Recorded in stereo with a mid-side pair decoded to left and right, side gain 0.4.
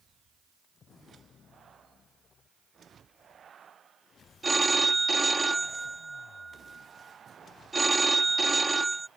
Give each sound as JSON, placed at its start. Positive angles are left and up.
{"t": 4.4, "sound": "a phone ringing", "azimuth_deg": -25}